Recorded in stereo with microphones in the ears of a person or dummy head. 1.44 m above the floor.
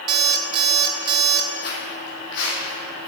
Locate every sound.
0.1 s an alarm clock: 30° right (ahead or behind), 1.3 m
1.6 s footsteps: 50° left (ahead or behind), 3.5 m; by 3.1 s 65° left (ahead or behind), 5.5 m